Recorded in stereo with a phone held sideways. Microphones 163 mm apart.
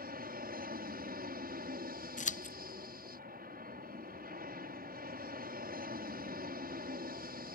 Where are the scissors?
50° left (ahead or behind).